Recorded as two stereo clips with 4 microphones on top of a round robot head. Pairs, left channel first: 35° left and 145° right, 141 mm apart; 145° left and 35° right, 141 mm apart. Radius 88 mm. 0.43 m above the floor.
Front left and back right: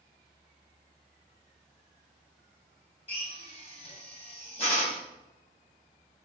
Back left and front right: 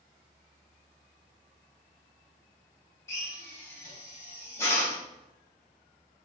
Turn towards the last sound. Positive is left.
turn(degrees=75)